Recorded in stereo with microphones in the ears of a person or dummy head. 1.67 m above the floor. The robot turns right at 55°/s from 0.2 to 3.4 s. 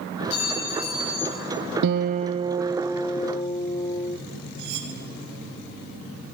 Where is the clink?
30° left, 7.5 m; by 1.4 s 90° left, 7.5 m.